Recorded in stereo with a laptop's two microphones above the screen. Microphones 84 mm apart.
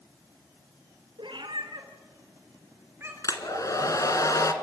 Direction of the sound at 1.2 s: 80° right.